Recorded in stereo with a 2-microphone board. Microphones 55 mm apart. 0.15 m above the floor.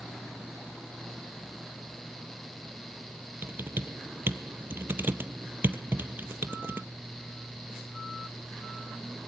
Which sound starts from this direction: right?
Typing on a keyboard, at 3.4 s.